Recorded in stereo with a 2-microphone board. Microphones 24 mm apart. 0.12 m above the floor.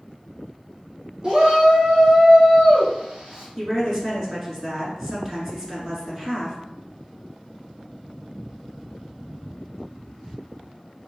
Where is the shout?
35° right (ahead or behind), 1.8 m; by 3.5 s 30° right (ahead or behind), 1.8 m.